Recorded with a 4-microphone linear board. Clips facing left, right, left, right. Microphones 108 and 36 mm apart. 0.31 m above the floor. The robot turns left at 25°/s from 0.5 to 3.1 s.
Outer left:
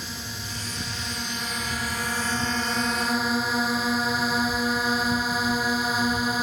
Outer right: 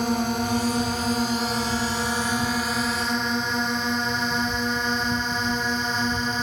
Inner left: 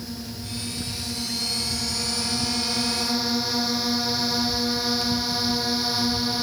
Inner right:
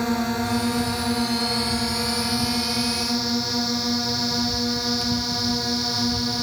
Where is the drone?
65° right (ahead or behind); by 6.4 s 5° left (ahead or behind).